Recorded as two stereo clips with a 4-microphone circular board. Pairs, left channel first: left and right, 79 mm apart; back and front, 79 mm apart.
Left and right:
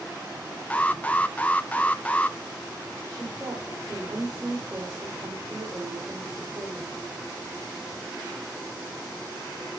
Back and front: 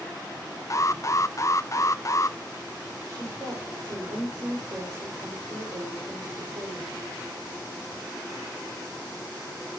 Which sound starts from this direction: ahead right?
A woman speaking, at 3.1 s.